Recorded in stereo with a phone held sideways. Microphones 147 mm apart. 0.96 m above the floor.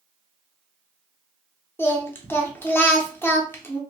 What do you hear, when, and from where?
1.8 s singing: 15° left (ahead or behind), 0.6 m